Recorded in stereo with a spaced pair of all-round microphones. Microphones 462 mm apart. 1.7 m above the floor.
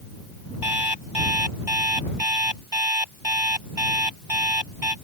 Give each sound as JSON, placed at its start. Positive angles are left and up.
{"t": 0.6, "sound": "an alarm clock", "side_deg": -60}